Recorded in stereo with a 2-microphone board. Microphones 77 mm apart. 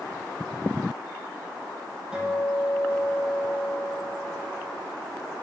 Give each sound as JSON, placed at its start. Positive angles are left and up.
{"t": 2.1, "sound": "a guitar", "side_deg": -5, "distance_m": 3.0}